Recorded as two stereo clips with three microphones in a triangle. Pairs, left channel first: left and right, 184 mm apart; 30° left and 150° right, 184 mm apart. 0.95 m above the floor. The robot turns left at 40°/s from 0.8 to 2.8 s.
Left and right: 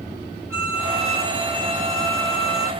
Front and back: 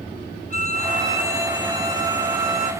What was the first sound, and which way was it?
A violin, 15° right.